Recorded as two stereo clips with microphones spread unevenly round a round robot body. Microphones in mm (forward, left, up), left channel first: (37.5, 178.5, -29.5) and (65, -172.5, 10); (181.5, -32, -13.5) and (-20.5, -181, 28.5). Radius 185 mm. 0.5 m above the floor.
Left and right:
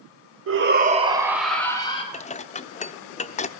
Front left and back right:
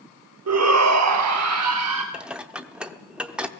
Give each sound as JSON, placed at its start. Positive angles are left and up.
{"t": 0.5, "sound": "a shout", "azimuth_deg": -140, "distance_m": 2.5}
{"t": 2.1, "sound": "dishes clattering", "azimuth_deg": 115, "distance_m": 0.6}